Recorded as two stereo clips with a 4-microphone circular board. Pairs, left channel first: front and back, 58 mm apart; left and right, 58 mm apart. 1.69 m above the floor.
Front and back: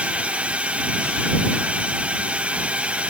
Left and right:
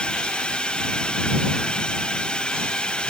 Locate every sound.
0.0 s a drone: 145° left